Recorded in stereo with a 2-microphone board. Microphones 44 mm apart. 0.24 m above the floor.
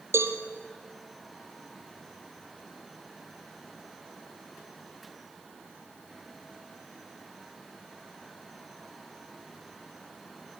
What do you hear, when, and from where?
0.1 s a cowbell: 75° right (ahead or behind), 2.5 m